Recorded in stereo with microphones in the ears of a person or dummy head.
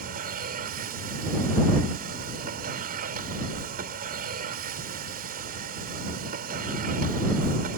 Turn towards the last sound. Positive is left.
turn(degrees=-50)  # may be behind; listen again after turning